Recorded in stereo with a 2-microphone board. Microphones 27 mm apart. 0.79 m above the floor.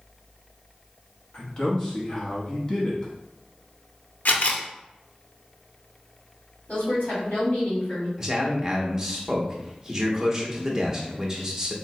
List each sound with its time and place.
1.3 s a man speaking: 30° left (ahead or behind), 1.0 m
4.2 s a camera shutter: 65° left (ahead or behind), 0.6 m
6.7 s a woman speaking: 50° left (ahead or behind), 2.0 m
8.2 s a man speaking: 20° right (ahead or behind), 0.9 m